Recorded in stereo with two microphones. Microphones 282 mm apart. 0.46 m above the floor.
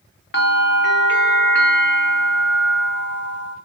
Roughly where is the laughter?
No laughter in this recording.